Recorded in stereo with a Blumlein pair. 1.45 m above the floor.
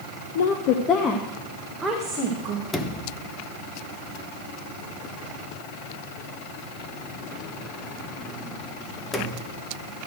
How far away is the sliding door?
About 1.0 m.